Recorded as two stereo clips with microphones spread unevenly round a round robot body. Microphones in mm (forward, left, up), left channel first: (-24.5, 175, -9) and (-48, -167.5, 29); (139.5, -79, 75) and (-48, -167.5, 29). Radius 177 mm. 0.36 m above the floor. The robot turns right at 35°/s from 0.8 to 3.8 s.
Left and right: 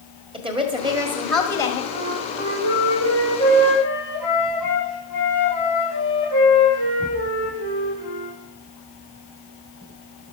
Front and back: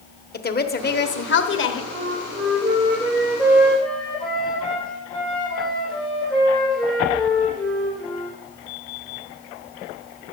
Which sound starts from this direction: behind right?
A flute, at 1.9 s.